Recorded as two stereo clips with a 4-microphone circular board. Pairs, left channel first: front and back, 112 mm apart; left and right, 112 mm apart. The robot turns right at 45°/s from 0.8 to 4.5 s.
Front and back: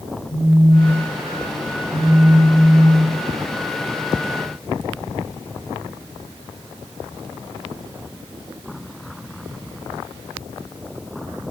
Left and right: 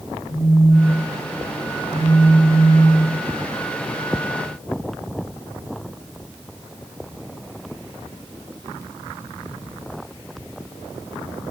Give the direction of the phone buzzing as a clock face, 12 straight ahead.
8 o'clock.